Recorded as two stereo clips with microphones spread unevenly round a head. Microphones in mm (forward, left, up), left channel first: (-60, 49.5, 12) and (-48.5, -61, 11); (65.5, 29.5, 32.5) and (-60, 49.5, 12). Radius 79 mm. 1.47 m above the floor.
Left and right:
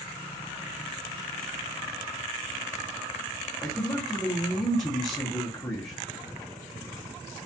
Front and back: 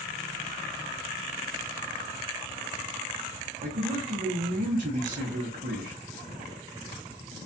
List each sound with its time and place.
3.6 s a man speaking: 160° left, 0.8 m